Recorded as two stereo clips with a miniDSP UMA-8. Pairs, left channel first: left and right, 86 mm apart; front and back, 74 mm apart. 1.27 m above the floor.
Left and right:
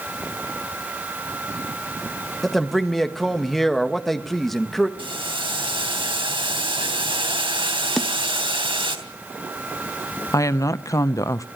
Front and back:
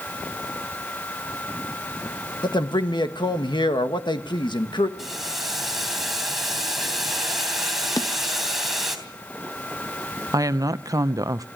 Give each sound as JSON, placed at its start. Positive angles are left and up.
{"t": 2.4, "sound": "a man speaking", "azimuth_deg": 5, "distance_m": 1.6}
{"t": 5.0, "sound": "boiling", "azimuth_deg": -90, "distance_m": 3.0}
{"t": 8.0, "sound": "a snare drum", "azimuth_deg": 5, "distance_m": 0.8}
{"t": 10.3, "sound": "a woman speaking", "azimuth_deg": 145, "distance_m": 0.8}